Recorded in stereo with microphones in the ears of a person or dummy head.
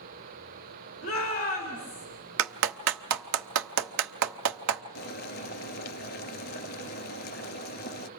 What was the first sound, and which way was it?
A shout, 50° left (ahead or behind).